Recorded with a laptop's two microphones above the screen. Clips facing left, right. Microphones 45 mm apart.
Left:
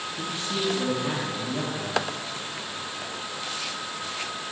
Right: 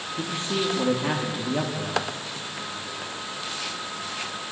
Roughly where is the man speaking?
Right.